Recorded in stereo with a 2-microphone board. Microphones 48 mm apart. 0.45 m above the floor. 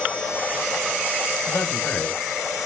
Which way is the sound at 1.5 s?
65° left (ahead or behind).